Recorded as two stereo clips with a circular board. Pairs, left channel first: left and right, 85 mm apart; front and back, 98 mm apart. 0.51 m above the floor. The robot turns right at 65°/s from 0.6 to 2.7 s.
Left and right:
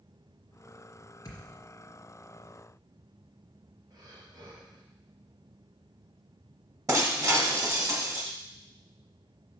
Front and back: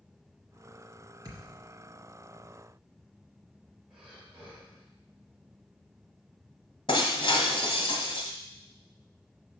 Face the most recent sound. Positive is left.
turn(degrees=-35)